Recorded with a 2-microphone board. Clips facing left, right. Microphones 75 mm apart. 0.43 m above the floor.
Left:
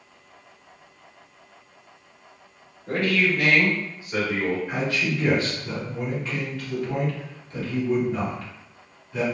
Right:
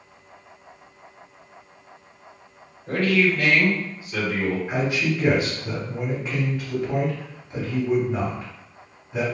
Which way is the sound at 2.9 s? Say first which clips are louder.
Right 2 dB; 5° left (ahead or behind).